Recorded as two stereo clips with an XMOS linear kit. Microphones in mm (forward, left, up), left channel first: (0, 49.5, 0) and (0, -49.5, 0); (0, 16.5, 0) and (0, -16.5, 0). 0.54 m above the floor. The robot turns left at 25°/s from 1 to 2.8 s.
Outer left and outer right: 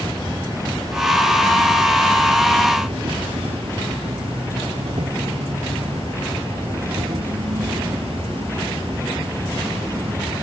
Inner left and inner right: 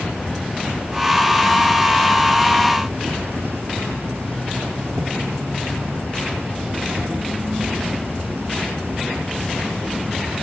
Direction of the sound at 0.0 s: 35° right.